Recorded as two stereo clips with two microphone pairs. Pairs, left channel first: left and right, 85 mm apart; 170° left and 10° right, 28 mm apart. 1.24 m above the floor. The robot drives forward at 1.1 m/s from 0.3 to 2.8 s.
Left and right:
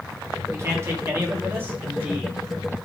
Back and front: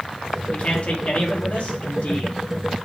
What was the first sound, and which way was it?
A man speaking, 145° right.